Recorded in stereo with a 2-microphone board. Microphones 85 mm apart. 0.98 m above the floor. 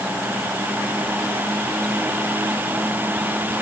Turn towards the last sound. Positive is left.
No sound to turn to.